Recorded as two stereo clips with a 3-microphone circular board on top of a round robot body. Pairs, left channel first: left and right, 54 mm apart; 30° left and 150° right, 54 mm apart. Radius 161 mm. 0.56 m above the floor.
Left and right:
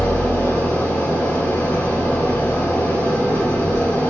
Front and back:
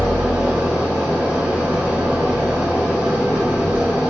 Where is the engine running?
140° left, 2.5 m.